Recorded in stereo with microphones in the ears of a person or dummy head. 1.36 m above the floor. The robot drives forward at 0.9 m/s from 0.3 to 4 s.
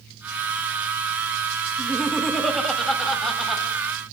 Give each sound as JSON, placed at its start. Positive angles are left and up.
{"t": 1.8, "sound": "laughter", "side_deg": 0, "distance_m": 2.0}